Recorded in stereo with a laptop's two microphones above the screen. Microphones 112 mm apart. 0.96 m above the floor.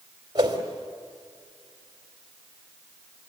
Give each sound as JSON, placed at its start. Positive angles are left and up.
{"t": 0.3, "sound": "a whoosh", "side_deg": -40, "distance_m": 3.5}